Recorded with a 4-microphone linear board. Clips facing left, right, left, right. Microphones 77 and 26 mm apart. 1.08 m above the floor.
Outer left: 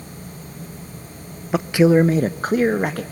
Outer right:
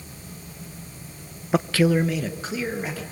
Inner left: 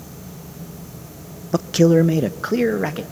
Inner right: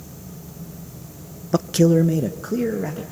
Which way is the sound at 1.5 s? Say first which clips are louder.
Outer left 5 dB, inner left 2 dB; centre (ahead or behind).